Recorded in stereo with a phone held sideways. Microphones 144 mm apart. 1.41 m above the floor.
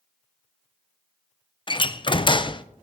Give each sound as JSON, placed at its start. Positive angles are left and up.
{"t": 1.7, "sound": "a door slam", "side_deg": 35, "distance_m": 0.5}